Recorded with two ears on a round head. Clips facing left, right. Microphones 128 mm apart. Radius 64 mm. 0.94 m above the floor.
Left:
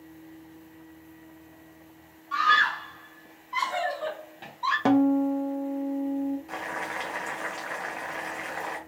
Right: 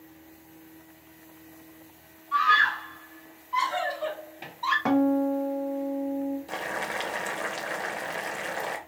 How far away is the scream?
About 1.1 m.